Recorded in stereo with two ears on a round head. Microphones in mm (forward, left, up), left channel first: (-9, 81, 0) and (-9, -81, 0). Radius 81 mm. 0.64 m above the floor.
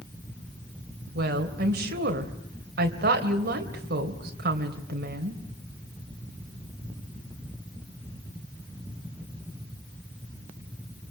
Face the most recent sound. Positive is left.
turn(degrees=-60)  # may be behind; listen again after turning